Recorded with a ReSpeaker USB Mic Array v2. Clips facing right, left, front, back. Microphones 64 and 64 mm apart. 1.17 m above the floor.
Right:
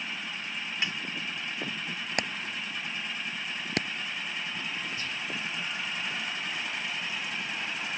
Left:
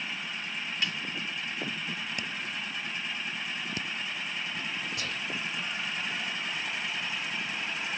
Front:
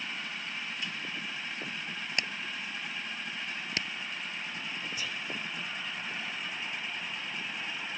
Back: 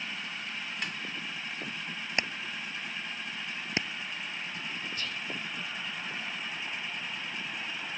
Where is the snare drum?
155° right.